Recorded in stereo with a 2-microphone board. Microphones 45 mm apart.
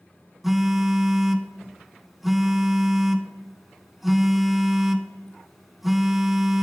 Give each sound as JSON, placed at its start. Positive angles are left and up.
{"t": 0.4, "sound": "a phone buzzing", "side_deg": -5, "distance_m": 0.7}